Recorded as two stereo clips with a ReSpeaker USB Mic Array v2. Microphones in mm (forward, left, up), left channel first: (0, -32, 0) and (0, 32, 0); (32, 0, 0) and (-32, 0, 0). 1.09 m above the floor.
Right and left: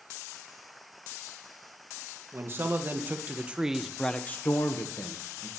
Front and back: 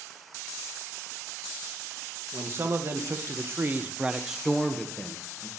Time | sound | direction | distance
2.3 | a man speaking | 135° left | 1.4 m